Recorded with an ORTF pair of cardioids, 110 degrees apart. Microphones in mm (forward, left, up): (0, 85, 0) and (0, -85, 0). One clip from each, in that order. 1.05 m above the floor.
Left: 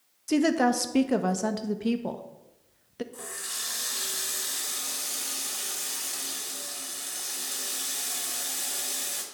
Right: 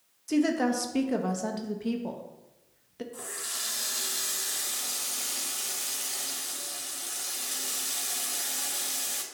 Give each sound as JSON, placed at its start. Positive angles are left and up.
{"t": 0.3, "sound": "a woman speaking", "azimuth_deg": 20, "distance_m": 1.0}
{"t": 3.1, "sound": "a running tap", "azimuth_deg": -5, "distance_m": 2.5}